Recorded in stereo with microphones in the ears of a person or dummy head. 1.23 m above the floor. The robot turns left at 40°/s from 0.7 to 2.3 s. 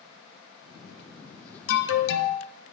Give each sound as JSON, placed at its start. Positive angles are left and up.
{"t": 1.7, "sound": "an alarm", "side_deg": 65, "distance_m": 0.9}